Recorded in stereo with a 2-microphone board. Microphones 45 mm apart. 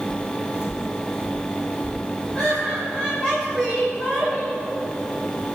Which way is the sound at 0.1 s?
15° left (ahead or behind).